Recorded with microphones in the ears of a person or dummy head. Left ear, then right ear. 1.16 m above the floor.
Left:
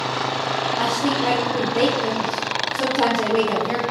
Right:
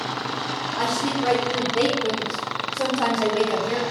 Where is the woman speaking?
15° right (ahead or behind), 1.5 m; by 3.8 s 75° left (ahead or behind), 1.5 m.